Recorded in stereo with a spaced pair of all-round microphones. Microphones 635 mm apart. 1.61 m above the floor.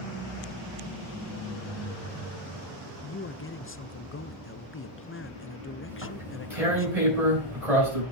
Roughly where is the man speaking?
Left.